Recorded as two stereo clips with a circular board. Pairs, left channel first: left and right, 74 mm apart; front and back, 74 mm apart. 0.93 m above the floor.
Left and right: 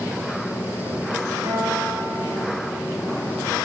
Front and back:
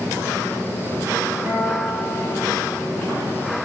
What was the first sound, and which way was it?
A guitar, 105° right.